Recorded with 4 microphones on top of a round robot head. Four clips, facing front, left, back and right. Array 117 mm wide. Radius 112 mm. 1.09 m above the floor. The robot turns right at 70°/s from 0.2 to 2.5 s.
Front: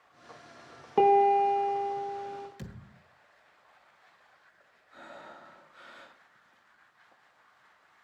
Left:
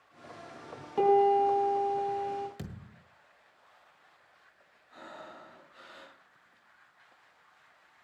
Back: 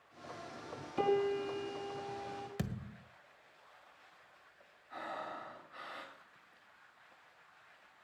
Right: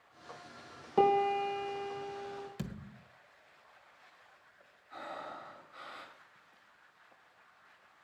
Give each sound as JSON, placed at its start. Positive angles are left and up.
{"t": 1.0, "sound": "a piano", "azimuth_deg": -10, "distance_m": 5.0}
{"t": 2.6, "sound": "a thud", "azimuth_deg": 180, "distance_m": 1.8}
{"t": 4.9, "sound": "breathing", "azimuth_deg": -160, "distance_m": 6.0}